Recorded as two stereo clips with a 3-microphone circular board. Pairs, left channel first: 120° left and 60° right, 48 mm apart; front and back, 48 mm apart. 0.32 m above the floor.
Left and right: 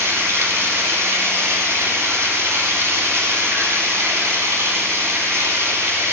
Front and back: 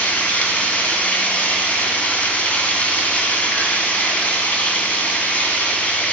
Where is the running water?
55° right, 1.5 m.